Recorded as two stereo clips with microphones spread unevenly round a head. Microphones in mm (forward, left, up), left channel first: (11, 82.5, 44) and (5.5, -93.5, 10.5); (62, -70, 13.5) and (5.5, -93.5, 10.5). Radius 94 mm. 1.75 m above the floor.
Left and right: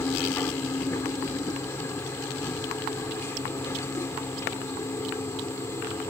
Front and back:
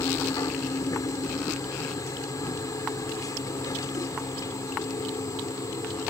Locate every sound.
0.0 s a machine running: 15° left